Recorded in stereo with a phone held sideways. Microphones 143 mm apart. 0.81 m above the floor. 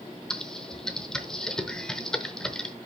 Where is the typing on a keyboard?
5° left (ahead or behind), 0.7 m.